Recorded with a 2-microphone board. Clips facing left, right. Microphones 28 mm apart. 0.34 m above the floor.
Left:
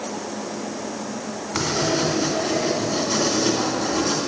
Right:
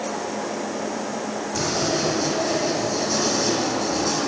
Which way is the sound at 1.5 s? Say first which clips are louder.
Left 2 dB; 60° left (ahead or behind).